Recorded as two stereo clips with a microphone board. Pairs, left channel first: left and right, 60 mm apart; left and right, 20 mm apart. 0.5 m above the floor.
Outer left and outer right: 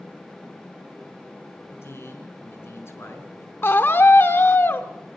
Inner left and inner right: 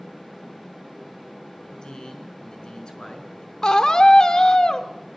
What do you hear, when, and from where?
1.7 s a man speaking: 50° left (ahead or behind), 5.5 m
3.6 s a scream: 45° left (ahead or behind), 1.2 m